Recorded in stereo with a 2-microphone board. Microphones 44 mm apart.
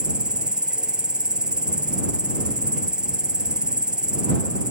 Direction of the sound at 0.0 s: 20° right (ahead or behind).